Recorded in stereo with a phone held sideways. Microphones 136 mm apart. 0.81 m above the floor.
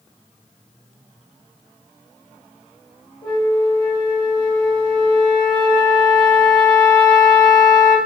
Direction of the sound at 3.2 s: 35° left (ahead or behind).